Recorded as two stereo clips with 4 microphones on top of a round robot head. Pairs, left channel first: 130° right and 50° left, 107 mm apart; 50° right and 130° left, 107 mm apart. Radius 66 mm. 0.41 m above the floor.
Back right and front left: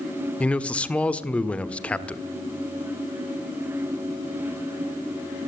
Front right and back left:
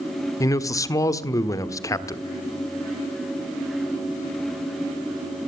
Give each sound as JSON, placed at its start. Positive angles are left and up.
{"t": 0.4, "sound": "a man speaking", "azimuth_deg": -65, "distance_m": 1.4}